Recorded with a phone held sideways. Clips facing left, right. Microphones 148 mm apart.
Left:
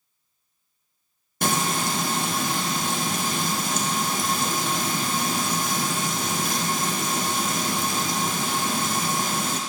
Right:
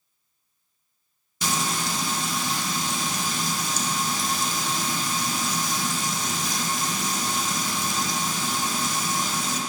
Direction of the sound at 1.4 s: 55° left (ahead or behind).